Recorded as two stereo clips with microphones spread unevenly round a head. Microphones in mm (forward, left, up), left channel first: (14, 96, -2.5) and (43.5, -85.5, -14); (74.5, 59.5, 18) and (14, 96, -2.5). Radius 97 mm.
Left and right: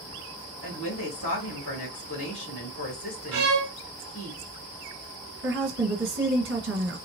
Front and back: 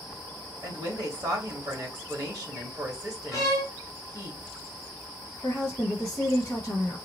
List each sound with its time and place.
0.6 s a woman speaking: 115° left, 2 m
3.3 s a violin: 125° right, 1.2 m
5.4 s a woman speaking: 115° right, 1.4 m